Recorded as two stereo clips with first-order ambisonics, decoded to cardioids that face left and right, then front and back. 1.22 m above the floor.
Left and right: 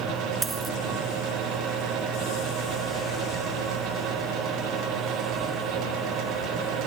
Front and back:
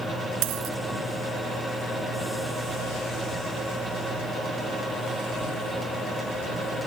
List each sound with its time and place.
0.4 s a dropped coin: 170° right